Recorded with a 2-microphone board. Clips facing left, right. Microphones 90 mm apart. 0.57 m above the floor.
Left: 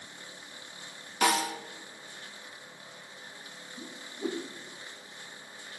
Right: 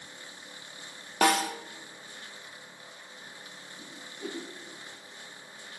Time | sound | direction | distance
1.2 | a snare drum | 55° right (ahead or behind) | 0.7 m
3.8 | a whoosh | 25° left (ahead or behind) | 0.8 m